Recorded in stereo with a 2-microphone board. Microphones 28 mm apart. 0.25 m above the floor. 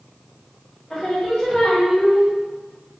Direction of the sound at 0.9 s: 10° left (ahead or behind).